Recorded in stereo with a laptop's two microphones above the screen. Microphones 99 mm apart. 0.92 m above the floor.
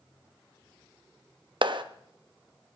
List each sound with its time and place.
1.6 s a clap: 60° right (ahead or behind), 0.7 m